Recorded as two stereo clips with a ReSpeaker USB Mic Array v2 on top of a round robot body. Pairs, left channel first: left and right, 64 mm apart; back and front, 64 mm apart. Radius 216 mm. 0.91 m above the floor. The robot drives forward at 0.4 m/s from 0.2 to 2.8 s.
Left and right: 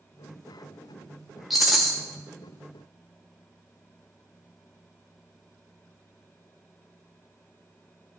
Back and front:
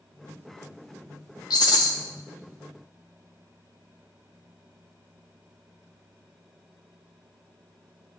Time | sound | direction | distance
1.5 | a rattle | straight behind | 0.5 m